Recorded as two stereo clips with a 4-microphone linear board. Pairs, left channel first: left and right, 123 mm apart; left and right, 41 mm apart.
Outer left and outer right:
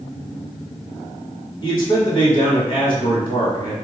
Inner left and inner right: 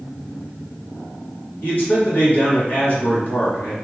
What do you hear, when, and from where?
1.6 s a man speaking: 45° left (ahead or behind), 1.5 m